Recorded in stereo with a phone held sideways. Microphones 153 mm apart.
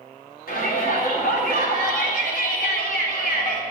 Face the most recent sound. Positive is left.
turn(degrees=70)  # may be behind; listen again after turning